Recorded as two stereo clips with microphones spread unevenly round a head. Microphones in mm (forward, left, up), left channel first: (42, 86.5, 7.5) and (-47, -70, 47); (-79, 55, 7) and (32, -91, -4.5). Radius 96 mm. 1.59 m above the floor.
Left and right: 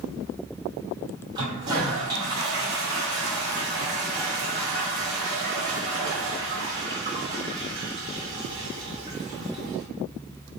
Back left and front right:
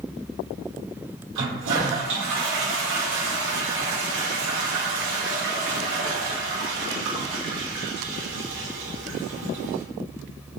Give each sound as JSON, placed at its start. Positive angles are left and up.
{"t": 1.4, "sound": "a toilet flushing", "azimuth_deg": -55, "distance_m": 0.9}